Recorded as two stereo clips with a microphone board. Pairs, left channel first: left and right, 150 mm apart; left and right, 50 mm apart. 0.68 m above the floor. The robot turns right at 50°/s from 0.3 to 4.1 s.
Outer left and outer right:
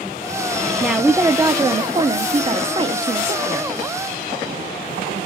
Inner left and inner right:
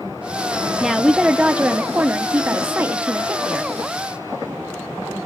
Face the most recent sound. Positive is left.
turn(degrees=-5)